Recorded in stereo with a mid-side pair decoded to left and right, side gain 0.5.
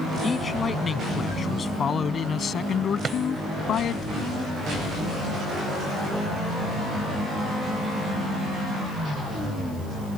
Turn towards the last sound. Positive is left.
turn(degrees=-40)